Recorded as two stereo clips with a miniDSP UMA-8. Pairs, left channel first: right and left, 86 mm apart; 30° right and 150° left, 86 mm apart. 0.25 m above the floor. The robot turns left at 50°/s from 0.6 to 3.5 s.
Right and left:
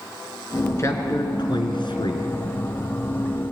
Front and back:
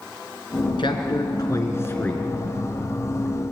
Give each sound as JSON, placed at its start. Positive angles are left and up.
{"t": 0.8, "sound": "a man speaking", "azimuth_deg": -40, "distance_m": 3.0}